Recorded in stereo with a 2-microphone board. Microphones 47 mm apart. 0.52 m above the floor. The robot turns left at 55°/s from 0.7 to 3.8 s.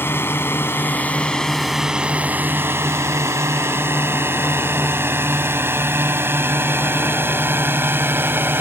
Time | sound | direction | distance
0.0 | a drone | 50° left (ahead or behind) | ?